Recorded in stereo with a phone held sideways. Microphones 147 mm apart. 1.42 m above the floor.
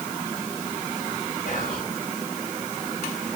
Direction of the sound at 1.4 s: 70° left (ahead or behind).